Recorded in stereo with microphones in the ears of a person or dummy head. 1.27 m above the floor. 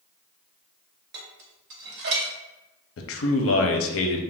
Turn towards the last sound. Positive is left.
turn(degrees=65)  # may be behind; listen again after turning